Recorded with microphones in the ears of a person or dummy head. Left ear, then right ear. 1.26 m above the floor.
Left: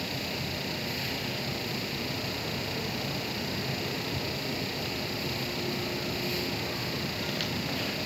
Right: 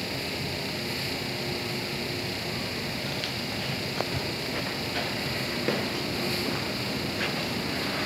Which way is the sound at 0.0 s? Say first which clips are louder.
Right 2 dB; 15° right (ahead or behind).